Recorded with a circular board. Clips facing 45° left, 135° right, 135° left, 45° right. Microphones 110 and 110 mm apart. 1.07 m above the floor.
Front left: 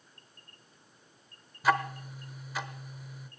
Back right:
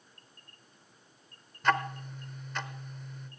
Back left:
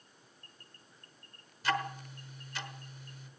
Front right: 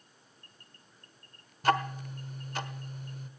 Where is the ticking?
35° right, 1.1 m.